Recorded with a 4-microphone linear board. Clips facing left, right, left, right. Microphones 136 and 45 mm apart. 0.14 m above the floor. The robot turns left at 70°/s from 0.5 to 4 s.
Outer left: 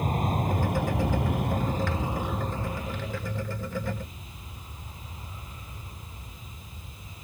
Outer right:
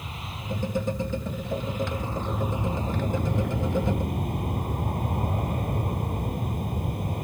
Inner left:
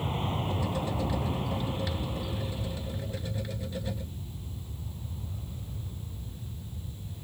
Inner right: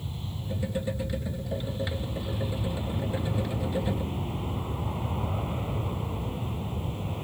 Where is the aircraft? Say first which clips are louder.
Outer left 11 dB, inner left 7 dB; 130° left; by 7.2 s 115° right.